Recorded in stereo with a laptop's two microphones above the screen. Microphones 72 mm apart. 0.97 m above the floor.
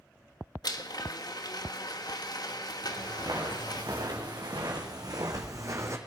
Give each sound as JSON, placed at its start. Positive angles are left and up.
{"t": 0.6, "sound": "a blender", "side_deg": 70, "distance_m": 1.3}
{"t": 2.8, "sound": "footsteps", "side_deg": -80, "distance_m": 5.0}